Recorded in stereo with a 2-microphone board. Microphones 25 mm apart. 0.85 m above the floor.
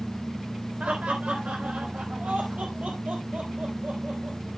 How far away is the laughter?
About 3.5 m.